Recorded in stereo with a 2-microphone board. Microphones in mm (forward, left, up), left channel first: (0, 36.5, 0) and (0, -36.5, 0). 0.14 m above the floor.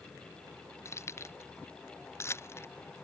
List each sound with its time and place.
0.8 s keys jangling: 40° left (ahead or behind); by 2.7 s 35° left (ahead or behind)